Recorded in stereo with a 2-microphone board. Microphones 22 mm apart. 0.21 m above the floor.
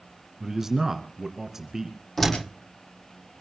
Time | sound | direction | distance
0.4 | a man speaking | 20° right (ahead or behind) | 2.5 m
2.2 | a door slam | 15° left (ahead or behind) | 7.5 m